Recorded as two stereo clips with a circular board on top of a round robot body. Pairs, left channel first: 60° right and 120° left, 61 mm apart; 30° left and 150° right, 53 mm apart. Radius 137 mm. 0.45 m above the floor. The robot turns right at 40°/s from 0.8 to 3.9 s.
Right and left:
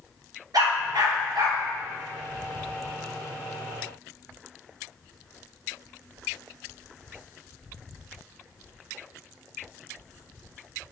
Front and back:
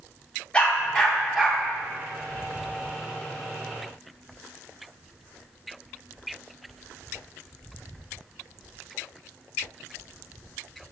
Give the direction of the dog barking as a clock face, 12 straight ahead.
9 o'clock.